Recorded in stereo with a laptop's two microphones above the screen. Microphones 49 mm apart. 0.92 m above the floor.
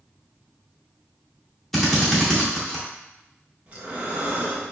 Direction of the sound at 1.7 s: 5° left (ahead or behind).